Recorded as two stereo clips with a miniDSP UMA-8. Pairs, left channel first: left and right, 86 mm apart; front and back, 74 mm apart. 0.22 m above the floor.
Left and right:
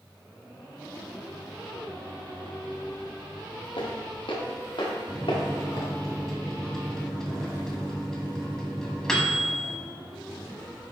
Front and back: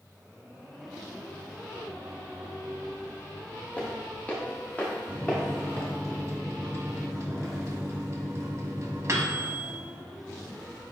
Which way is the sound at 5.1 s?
170° left.